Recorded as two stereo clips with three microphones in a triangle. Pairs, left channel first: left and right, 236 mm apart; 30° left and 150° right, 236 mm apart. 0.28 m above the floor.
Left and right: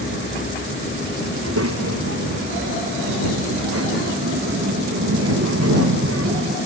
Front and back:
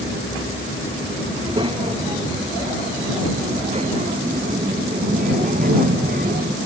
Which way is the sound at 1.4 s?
80° right.